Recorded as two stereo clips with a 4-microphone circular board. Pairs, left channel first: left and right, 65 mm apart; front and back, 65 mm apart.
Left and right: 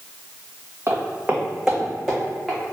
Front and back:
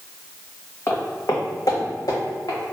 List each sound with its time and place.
0.9 s footsteps: 40° right, 1.0 m; by 2.6 s 10° left, 2 m